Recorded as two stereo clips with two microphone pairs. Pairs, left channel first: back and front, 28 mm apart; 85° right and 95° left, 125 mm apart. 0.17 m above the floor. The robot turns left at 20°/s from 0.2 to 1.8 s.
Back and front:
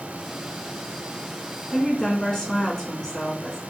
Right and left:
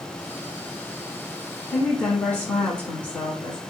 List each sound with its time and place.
1.7 s a woman speaking: 140° right, 1.2 m; by 3.6 s 145° right, 1.2 m